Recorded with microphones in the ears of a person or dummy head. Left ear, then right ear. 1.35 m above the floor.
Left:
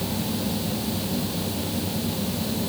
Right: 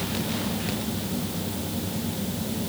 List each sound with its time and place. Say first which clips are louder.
0.0 s a fan: left 1 dB; 15° left (ahead or behind)